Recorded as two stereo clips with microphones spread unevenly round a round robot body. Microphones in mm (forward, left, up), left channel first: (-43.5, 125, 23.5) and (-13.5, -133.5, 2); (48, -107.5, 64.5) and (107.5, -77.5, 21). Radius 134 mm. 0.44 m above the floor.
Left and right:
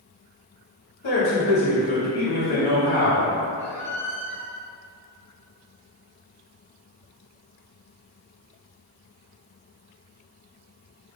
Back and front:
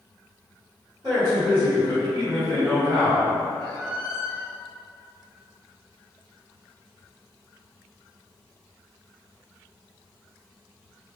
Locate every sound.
1.0 s a man speaking: 95° left, 1.7 m
3.6 s a squeak: 165° left, 0.8 m